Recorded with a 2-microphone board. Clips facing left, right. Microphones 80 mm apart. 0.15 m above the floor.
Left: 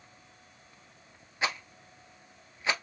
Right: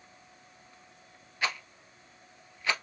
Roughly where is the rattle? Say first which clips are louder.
Left 1 dB; left.